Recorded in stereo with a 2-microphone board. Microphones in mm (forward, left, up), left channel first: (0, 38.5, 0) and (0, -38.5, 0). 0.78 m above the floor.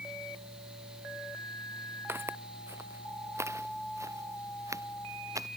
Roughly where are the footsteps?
Right.